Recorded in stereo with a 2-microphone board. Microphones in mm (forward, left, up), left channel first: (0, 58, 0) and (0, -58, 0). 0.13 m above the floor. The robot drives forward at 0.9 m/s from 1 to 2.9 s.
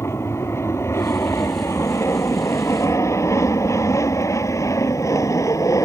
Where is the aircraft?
25° left (ahead or behind); by 5.9 s 30° left (ahead or behind).